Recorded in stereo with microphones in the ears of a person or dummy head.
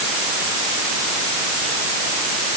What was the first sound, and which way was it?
Only background noise.